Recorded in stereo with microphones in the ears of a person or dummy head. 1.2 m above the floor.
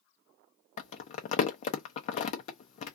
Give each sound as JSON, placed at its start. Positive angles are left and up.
{"t": 0.8, "sound": "crumpling", "side_deg": 35, "distance_m": 0.5}